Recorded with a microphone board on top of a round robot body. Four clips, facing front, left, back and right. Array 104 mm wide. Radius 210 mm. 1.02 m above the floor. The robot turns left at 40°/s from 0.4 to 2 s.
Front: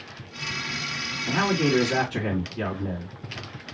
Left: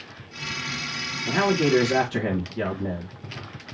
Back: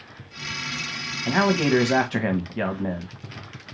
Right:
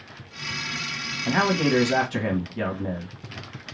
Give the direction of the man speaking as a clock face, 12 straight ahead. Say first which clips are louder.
Left 1 dB, back 3 dB; 5 o'clock.